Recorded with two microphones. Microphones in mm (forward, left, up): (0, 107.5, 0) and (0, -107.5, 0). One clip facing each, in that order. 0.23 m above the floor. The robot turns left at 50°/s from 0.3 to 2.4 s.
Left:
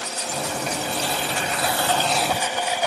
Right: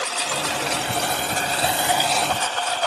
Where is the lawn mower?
85° right; by 2.9 s 170° left.